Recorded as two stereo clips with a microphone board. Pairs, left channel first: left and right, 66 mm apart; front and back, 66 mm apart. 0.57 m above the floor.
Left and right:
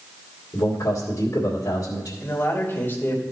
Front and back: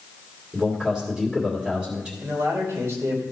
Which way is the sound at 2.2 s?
145° left.